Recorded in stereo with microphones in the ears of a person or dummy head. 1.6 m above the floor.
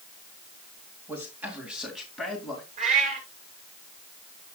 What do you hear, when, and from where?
1.1 s a man speaking: 5° right (ahead or behind), 2.5 m; by 2.7 s 10° left (ahead or behind), 3 m
2.8 s a cat meowing: 45° right (ahead or behind), 4 m